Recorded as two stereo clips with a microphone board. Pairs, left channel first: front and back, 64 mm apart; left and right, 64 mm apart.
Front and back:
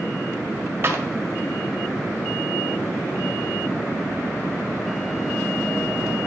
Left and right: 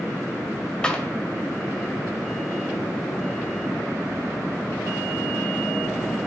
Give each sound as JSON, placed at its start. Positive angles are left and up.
{"t": 0.8, "sound": "a clap", "azimuth_deg": 160, "distance_m": 1.2}